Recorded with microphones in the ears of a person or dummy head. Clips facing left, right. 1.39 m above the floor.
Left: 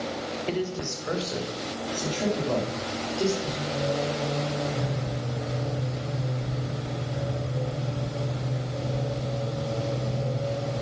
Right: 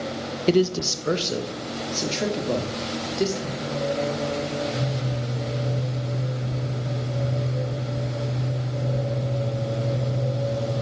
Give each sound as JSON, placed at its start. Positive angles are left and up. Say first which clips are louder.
{"t": 0.5, "sound": "a man speaking", "louder": "right 11 dB", "side_deg": -60, "distance_m": 0.8}
{"t": 3.4, "sound": "singing", "louder": "right 2 dB", "side_deg": -25, "distance_m": 7.5}